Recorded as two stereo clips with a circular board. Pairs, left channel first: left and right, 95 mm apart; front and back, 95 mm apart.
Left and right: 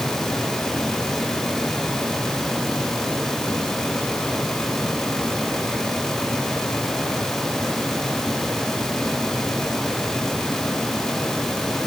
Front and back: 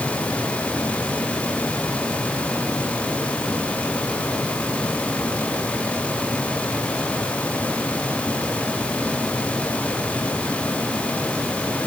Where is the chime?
I don't hear a chime.